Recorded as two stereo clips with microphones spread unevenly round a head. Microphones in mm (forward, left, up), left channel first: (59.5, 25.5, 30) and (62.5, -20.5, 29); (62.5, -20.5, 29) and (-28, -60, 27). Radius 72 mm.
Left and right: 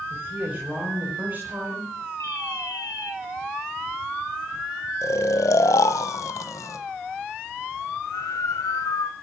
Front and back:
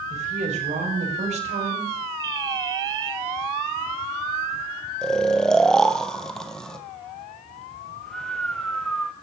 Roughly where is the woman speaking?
Behind.